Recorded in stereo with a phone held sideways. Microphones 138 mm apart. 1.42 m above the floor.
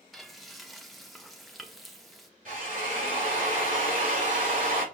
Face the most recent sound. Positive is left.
turn(degrees=-70)  # may be behind; listen again after turning